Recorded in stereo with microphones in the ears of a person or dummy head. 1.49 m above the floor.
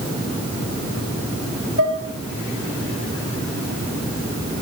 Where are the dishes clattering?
65° right (ahead or behind), 1.8 m.